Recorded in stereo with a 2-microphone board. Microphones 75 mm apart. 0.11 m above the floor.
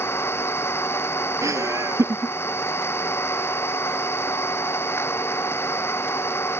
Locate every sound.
0.0 s an engine running: 30° left (ahead or behind)
1.4 s laughter: 45° right (ahead or behind)